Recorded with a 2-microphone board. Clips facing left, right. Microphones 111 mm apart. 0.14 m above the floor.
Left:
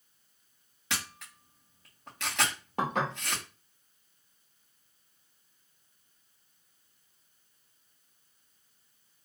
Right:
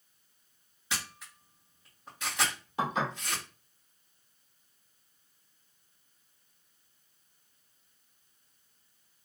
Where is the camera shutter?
85° left, 2.5 m.